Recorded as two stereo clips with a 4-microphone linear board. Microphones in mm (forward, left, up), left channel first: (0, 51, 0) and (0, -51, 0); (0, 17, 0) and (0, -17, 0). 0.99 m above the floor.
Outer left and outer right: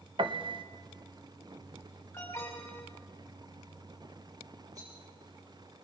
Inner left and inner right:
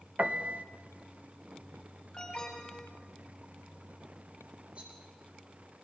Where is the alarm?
25° left (ahead or behind), 5 m.